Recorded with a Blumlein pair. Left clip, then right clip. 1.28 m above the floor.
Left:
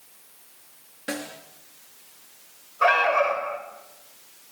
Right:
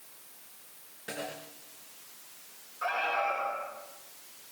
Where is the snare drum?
60° left, 6 m.